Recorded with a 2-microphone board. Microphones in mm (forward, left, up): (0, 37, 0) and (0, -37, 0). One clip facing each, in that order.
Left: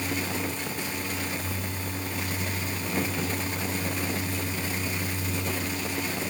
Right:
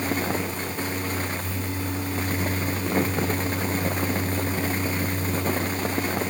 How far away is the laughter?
I don't hear laughter.